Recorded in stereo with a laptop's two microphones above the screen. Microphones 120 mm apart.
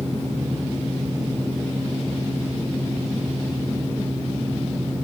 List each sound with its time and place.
0.0 s a fan: 20° left (ahead or behind), 1.3 m